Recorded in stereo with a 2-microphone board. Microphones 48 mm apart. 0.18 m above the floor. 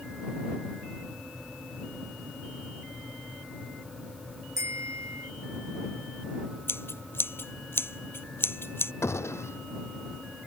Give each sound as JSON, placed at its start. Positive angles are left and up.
{"t": 4.6, "sound": "a bicycle bell", "side_deg": -75}
{"t": 6.7, "sound": "scissors", "side_deg": 55}
{"t": 9.0, "sound": "a gunshot", "side_deg": 70}